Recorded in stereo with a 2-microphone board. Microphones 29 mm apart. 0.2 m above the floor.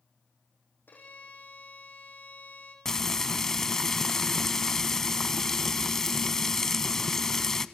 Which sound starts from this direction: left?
A violin, at 0.9 s.